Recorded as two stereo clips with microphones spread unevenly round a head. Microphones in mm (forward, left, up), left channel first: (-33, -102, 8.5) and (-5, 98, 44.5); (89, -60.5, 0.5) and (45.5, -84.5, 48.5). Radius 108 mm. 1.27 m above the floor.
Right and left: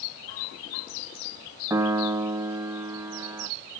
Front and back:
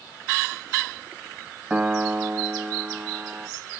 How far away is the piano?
About 0.6 m.